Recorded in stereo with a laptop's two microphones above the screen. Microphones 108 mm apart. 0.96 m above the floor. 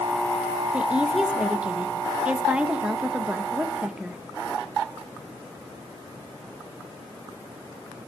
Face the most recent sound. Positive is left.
turn(degrees=-10)  # may be behind; listen again after turning